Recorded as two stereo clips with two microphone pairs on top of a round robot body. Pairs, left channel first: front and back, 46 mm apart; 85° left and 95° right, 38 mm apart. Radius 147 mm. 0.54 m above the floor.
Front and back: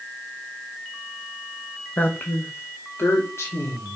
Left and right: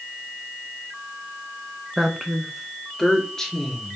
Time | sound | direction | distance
2.0 | a woman speaking | 10° right | 1.2 m